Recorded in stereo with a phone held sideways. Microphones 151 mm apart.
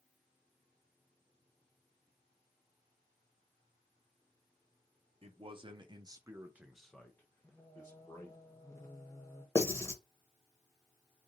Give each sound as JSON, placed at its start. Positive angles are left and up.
{"t": 5.2, "sound": "a man speaking", "side_deg": -40, "distance_m": 0.8}
{"t": 7.4, "sound": "singing", "side_deg": 20, "distance_m": 1.0}
{"t": 9.6, "sound": "writing", "side_deg": 20, "distance_m": 0.8}